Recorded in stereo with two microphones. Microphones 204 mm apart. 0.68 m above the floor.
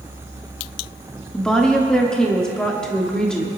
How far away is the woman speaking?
About 1.2 m.